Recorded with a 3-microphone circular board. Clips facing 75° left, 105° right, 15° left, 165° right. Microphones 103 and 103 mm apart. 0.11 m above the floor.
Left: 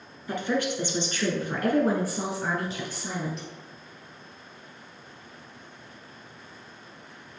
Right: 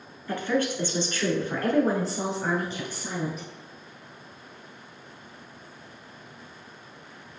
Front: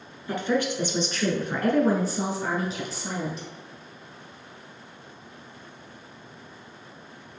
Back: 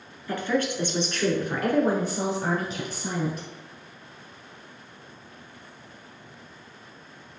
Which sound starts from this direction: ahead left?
A woman speaking, at 0.3 s.